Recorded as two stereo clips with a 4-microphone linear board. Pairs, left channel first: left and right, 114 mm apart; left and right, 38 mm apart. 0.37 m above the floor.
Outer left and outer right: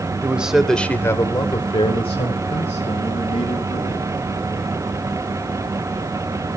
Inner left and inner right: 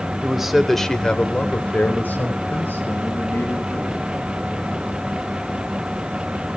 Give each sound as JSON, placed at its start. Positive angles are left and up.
{"t": 0.2, "sound": "a man speaking", "side_deg": -10, "distance_m": 1.1}